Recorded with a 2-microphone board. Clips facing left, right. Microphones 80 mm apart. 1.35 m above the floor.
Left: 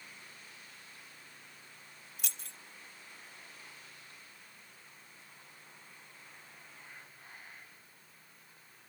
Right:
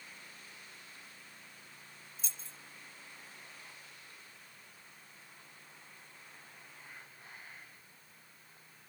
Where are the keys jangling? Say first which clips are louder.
Left 4 dB; 70° left (ahead or behind), 0.7 m.